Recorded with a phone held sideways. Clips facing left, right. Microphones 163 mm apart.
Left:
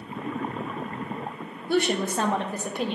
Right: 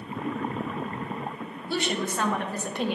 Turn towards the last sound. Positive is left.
turn(degrees=-5)  # may be behind; listen again after turning